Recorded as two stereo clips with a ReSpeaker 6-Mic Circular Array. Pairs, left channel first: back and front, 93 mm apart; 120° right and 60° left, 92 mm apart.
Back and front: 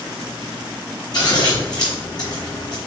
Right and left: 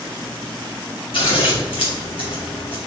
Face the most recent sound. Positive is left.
turn(degrees=-140)